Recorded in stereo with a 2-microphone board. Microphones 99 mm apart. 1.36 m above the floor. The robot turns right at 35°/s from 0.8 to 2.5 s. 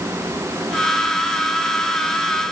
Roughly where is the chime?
No chime in this recording.